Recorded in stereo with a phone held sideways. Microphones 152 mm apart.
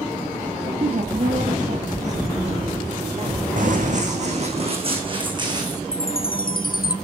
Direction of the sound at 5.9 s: 75° left (ahead or behind).